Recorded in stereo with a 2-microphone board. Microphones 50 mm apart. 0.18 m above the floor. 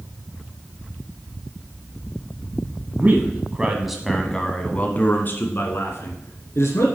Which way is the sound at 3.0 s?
35° right (ahead or behind).